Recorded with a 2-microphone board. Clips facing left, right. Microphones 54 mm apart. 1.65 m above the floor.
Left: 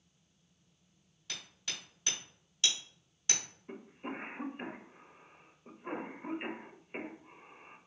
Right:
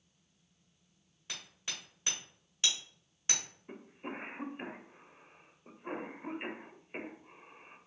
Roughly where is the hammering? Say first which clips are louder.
Even; right.